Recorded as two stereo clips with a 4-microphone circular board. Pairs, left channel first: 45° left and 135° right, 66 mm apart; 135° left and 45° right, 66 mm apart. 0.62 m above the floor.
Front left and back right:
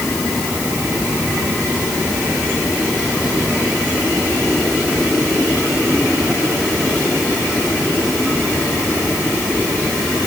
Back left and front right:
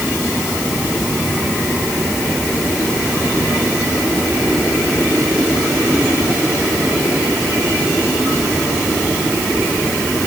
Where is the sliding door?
No sliding door in this recording.